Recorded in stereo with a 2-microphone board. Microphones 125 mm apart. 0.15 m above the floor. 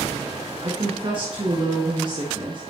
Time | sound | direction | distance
0.6 | a woman speaking | 45° right (ahead or behind) | 1.6 m